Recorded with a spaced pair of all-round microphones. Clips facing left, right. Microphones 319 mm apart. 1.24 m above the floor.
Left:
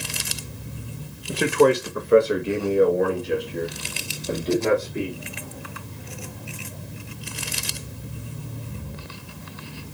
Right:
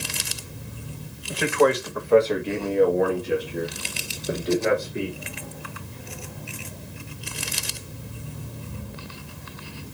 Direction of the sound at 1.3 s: 50° left (ahead or behind).